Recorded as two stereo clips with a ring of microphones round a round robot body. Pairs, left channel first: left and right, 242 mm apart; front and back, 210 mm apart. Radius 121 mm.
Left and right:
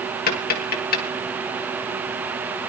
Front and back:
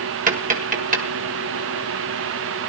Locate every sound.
0.3 s tapping: 135° left, 1.8 m